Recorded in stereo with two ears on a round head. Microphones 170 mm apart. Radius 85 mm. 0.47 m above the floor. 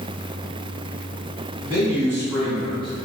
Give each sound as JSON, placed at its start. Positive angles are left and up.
{"t": 1.6, "sound": "a man speaking", "side_deg": -15, "distance_m": 1.8}